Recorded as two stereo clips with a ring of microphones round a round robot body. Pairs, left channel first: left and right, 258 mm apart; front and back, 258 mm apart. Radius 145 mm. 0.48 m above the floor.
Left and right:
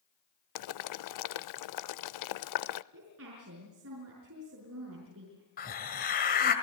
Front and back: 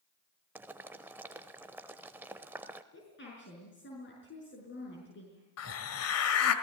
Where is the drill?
No drill in this recording.